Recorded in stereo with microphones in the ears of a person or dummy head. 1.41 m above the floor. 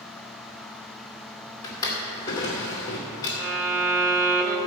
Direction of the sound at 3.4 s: 20° right (ahead or behind).